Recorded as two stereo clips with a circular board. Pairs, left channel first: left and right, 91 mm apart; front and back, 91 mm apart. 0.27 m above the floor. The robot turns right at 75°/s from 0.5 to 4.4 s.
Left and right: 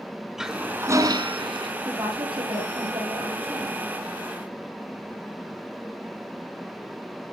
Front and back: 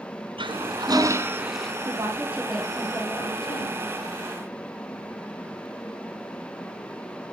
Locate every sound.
0.4 s a toilet flushing: 175° right, 1.8 m; by 1.7 s 80° right, 1.8 m
1.9 s a woman speaking: 140° right, 9 m; by 3.8 s 5° left, 9 m